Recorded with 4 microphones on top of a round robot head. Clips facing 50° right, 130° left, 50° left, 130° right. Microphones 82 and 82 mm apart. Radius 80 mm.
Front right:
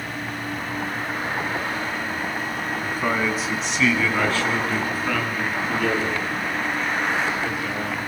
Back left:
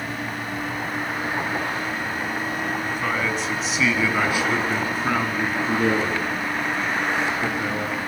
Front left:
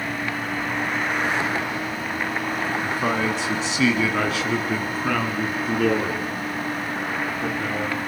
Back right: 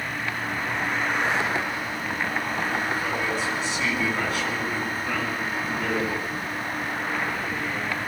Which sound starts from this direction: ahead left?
A man speaking, at 2.8 s.